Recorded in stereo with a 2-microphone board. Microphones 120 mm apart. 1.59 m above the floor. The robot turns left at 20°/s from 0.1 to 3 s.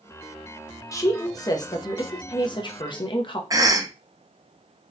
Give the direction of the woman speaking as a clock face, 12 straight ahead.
7 o'clock.